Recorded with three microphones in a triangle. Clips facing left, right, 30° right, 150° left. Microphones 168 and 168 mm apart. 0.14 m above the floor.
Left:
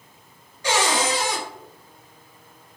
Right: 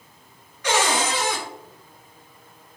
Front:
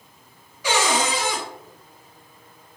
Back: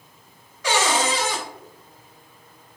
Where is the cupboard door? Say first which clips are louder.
Even, even; 50° left, 2.0 m.